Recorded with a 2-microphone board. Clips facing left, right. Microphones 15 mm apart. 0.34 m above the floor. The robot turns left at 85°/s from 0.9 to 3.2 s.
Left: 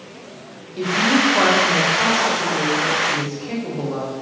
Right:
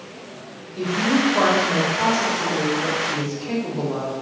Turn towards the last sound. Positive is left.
turn(degrees=-20)  # may be behind; listen again after turning